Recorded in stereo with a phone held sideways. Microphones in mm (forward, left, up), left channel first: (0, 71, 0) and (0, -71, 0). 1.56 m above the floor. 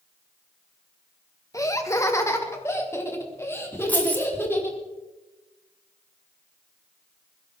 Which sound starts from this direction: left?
Laughter, at 1.5 s.